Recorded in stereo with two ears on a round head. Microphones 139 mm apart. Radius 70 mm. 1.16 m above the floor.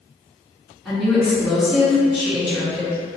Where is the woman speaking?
5° left (ahead or behind), 2.0 m.